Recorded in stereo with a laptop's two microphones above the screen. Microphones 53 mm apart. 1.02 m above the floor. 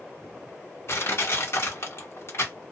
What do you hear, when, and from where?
0.9 s crushing: 55° left (ahead or behind), 1.2 m